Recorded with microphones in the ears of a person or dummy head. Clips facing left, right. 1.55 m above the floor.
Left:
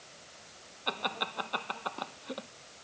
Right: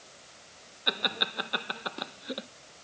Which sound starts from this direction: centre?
Laughter, at 0.9 s.